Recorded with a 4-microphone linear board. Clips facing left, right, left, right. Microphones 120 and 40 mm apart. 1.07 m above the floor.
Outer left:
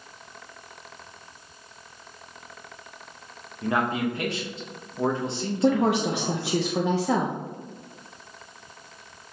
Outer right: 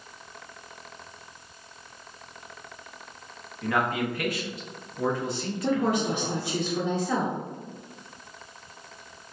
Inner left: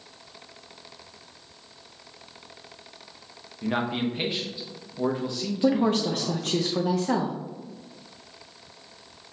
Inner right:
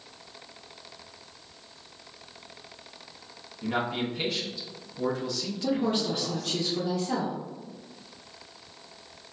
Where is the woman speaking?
75° left (ahead or behind), 0.5 m.